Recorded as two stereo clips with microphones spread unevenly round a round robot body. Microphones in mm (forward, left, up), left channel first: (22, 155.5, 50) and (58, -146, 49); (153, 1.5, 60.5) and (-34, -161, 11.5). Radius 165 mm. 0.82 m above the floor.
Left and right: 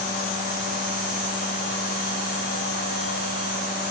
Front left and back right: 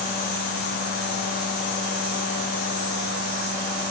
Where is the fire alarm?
I don't hear a fire alarm.